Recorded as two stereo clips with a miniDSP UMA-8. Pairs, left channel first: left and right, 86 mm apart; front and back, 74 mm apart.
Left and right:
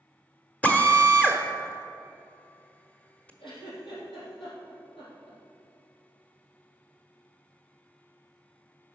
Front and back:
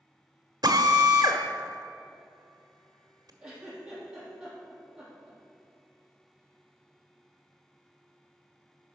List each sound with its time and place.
0.6 s a drill: 160° left, 1.1 m
3.4 s a giggle: 100° left, 4 m